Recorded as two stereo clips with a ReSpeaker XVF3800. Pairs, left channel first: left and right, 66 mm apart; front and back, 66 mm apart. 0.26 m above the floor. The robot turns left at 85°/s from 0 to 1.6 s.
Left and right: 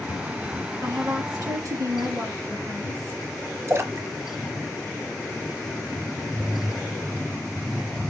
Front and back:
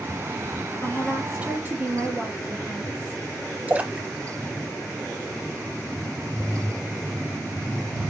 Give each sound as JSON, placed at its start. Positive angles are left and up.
{"t": 0.8, "sound": "a woman speaking", "azimuth_deg": -55, "distance_m": 4.0}
{"t": 3.7, "sound": "a splash", "azimuth_deg": -120, "distance_m": 0.8}